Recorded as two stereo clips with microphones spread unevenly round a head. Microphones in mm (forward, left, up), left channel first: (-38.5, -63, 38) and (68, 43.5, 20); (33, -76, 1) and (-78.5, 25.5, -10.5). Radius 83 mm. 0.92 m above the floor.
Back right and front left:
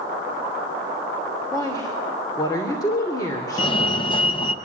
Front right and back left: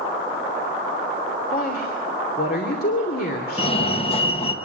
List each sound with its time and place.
1.5 s a woman speaking: 70° right, 3 m
3.6 s a fire alarm: 85° right, 1.6 m